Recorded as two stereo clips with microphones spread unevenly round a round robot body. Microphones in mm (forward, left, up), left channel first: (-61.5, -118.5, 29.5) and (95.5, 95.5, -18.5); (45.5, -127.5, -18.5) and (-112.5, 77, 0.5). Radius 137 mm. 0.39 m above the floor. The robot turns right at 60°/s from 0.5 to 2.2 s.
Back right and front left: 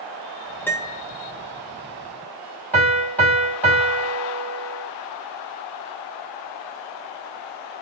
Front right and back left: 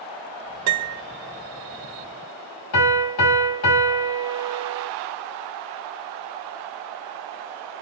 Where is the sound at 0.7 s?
145° left, 0.6 m; by 1.0 s 165° left, 0.6 m.